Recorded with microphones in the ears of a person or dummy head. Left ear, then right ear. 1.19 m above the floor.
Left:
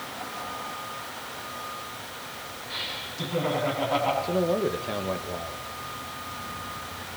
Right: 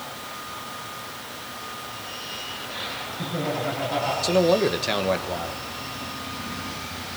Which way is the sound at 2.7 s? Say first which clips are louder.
Left 2 dB; 50° left (ahead or behind).